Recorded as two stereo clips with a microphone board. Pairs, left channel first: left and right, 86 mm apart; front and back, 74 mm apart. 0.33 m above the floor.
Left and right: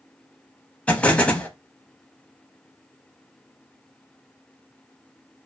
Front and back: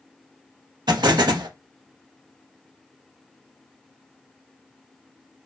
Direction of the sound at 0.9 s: 165° left.